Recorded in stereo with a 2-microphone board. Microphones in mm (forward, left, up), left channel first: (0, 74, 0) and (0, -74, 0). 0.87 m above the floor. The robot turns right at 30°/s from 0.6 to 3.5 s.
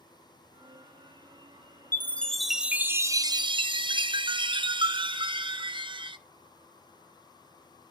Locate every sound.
1.9 s a chime: 165° left, 0.6 m; by 6.2 s 150° right, 0.6 m